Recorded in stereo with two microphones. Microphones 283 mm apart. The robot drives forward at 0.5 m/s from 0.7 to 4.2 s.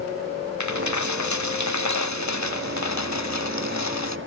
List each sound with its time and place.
0.6 s a dropped coin: 80° left; by 4.2 s 70° left (ahead or behind)